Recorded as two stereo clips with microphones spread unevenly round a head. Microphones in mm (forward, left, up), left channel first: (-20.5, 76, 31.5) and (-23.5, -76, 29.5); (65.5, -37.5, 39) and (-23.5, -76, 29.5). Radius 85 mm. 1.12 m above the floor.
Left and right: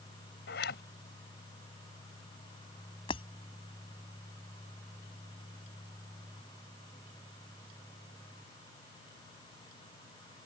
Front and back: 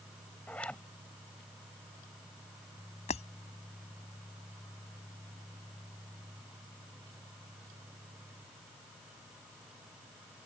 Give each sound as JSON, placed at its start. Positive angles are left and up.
{"t": 0.5, "sound": "a zipper", "azimuth_deg": 105}
{"t": 3.1, "sound": "breaking glass", "azimuth_deg": 30}